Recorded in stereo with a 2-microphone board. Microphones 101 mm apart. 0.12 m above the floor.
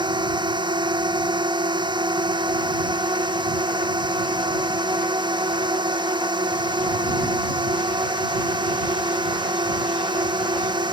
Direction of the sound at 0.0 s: 45° right (ahead or behind).